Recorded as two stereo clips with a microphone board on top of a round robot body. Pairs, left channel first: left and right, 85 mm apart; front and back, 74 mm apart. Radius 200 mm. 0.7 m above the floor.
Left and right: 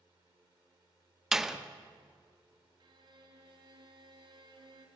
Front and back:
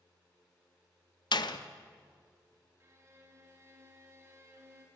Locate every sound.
1.3 s a door slam: 5° right, 1.6 m
2.8 s a violin: 125° right, 3 m